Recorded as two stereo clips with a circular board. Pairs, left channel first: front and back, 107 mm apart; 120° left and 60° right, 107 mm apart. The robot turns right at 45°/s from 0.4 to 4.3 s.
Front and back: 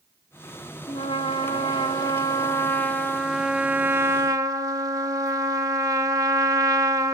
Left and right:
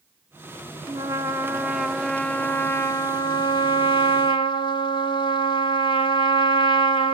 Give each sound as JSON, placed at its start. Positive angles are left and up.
{"t": 0.9, "sound": "a trumpet", "azimuth_deg": -20, "distance_m": 1.2}